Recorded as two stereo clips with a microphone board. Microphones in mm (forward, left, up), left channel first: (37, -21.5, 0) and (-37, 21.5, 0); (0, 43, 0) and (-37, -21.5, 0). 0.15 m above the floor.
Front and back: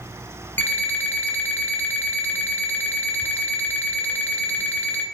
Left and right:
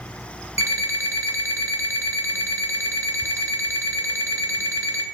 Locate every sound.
0.6 s an alarm clock: 90° right, 0.6 m